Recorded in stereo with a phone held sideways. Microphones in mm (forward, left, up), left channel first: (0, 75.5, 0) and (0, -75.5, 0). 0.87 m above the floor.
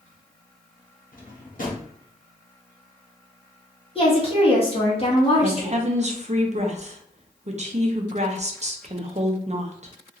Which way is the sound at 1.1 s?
65° left (ahead or behind).